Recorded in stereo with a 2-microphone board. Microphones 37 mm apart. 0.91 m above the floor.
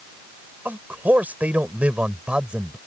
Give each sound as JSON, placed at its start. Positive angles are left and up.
{"t": 0.7, "sound": "a man speaking", "side_deg": -60}